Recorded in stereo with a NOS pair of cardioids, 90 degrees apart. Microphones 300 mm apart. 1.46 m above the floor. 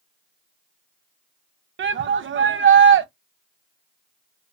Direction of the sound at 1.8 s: 40° right.